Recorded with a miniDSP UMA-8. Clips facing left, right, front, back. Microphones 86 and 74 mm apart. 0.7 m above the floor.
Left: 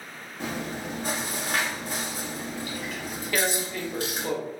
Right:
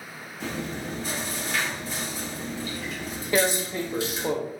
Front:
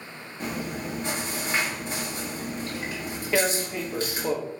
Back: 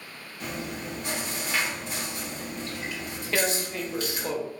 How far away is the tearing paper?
About 0.5 m.